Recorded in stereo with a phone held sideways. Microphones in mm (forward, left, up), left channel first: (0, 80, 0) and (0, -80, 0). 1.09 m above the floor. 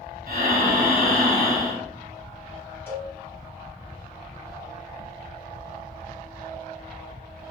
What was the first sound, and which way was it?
Breathing, 70° right (ahead or behind).